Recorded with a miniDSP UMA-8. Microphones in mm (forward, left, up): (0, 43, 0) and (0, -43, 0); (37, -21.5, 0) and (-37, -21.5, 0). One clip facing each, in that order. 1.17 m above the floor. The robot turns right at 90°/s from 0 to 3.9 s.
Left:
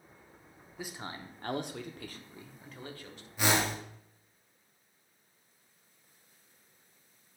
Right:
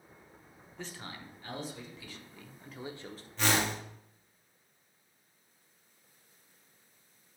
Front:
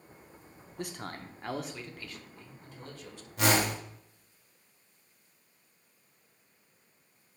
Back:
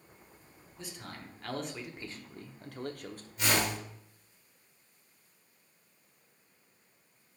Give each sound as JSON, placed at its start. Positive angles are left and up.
{"t": 0.8, "sound": "a man speaking", "azimuth_deg": 5, "distance_m": 0.9}
{"t": 3.4, "sound": "a whoosh", "azimuth_deg": 10, "distance_m": 1.8}